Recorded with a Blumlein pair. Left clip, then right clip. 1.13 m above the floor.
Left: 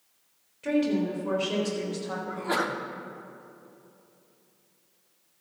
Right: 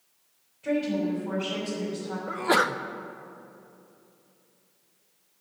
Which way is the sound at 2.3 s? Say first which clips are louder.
Right 6 dB; 20° right.